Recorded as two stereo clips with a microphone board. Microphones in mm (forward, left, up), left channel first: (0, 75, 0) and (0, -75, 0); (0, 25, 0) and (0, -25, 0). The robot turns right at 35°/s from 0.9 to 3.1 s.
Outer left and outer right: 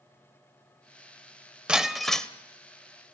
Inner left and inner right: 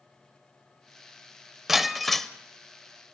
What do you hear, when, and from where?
1.7 s breaking glass: 5° right (ahead or behind), 0.8 m; by 2.3 s 5° left (ahead or behind), 0.8 m